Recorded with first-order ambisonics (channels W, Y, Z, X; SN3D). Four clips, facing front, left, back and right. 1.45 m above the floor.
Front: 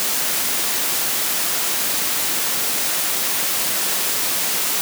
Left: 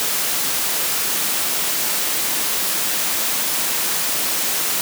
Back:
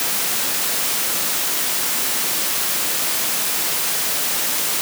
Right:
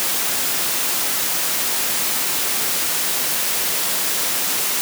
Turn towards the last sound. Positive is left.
No sound to turn to.